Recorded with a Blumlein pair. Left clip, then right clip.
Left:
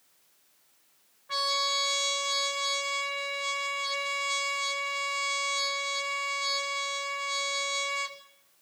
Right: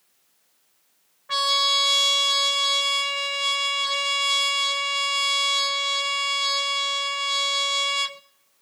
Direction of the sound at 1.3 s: 60° right.